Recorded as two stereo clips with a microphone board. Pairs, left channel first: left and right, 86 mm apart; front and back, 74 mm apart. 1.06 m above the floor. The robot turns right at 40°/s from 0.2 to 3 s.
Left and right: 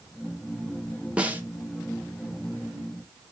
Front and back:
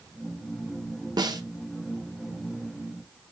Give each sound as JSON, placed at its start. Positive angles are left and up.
{"t": 1.2, "sound": "a snare drum", "azimuth_deg": -165, "distance_m": 0.5}